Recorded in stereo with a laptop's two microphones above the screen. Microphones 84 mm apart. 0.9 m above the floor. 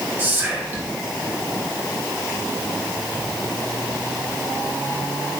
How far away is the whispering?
About 0.8 m.